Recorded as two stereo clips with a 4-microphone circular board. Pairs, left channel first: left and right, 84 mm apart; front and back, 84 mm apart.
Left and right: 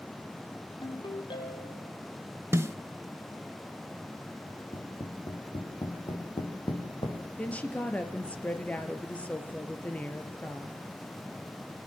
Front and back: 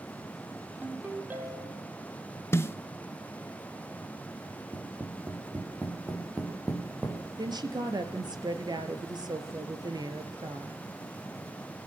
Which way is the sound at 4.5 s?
110° left.